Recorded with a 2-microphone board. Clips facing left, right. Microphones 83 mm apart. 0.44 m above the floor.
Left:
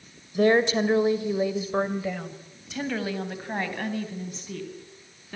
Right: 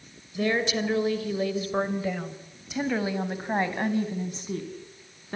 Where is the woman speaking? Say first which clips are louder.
Left 6 dB; 45° left (ahead or behind), 1.9 m; by 5.3 s 35° right (ahead or behind), 4.5 m.